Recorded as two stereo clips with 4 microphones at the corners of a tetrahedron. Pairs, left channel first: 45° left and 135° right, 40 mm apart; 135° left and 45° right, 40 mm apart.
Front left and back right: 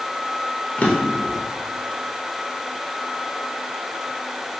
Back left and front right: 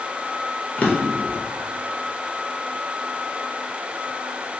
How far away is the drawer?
About 0.5 m.